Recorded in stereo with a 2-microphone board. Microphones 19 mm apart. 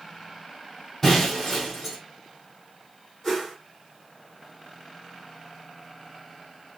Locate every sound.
1.0 s breaking glass: 5° left (ahead or behind), 2.5 m
3.2 s a whoosh: 10° left (ahead or behind), 3 m